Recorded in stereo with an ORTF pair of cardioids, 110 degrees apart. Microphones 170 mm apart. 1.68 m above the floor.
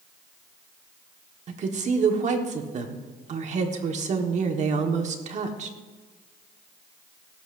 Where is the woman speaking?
45° right, 1.5 m.